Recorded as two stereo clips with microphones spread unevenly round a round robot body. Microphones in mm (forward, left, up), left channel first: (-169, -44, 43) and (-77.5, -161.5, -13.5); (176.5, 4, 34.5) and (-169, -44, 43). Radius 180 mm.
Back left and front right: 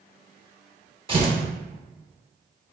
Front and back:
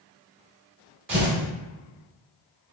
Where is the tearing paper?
115° right, 1.8 m.